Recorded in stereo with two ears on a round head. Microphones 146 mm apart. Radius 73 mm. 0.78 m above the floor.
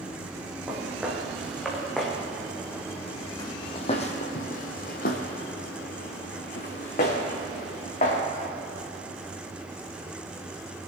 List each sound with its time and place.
0.7 s footsteps: 10° right (ahead or behind), 3 m; by 8.2 s 45° left (ahead or behind), 3.5 m